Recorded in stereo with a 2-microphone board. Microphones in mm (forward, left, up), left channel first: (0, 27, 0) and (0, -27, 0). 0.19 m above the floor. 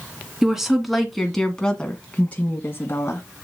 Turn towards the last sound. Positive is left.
turn(degrees=45)  # may be behind; listen again after turning